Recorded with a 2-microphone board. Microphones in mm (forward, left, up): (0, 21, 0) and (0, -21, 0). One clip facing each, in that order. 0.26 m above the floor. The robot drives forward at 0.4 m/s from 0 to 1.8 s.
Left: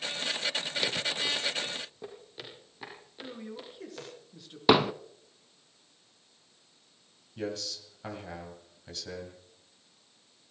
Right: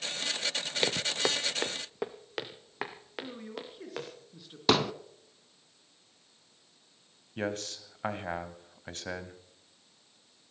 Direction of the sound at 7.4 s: 40° right (ahead or behind).